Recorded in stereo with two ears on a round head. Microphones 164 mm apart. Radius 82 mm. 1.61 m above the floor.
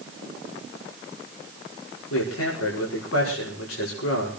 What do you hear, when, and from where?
2.1 s a man speaking: 85° left, 5.5 m